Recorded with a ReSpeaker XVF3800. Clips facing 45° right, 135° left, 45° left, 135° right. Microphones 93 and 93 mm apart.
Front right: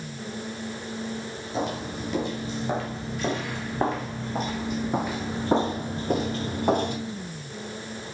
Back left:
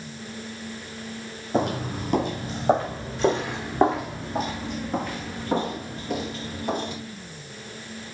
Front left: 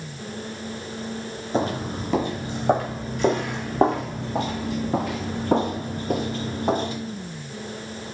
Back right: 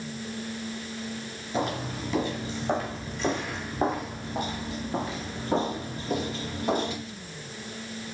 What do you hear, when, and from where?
1.5 s footsteps: 95° left, 3.5 m; by 7.0 s 10° right, 2.5 m